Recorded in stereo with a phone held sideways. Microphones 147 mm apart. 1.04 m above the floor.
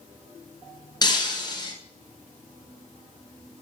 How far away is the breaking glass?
About 1.8 m.